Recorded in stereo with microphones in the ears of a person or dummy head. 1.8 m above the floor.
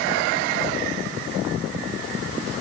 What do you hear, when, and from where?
Only background noise.